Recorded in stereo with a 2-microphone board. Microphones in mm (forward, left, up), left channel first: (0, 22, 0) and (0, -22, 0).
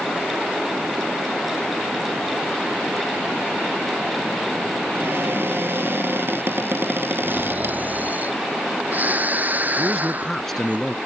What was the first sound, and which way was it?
A cupboard door, 55° right (ahead or behind).